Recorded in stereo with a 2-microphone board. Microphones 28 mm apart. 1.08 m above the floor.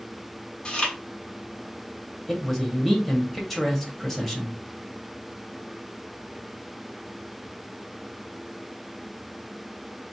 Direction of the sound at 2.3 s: 10° left (ahead or behind).